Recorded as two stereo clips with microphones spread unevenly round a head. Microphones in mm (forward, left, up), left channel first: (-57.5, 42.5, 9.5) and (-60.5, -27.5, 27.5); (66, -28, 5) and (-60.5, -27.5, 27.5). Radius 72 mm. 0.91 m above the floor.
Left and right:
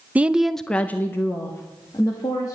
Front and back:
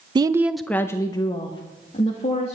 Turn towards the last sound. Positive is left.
turn(degrees=40)